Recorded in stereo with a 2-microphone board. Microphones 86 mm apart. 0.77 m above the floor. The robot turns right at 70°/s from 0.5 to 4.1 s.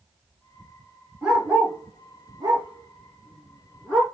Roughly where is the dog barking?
Centre.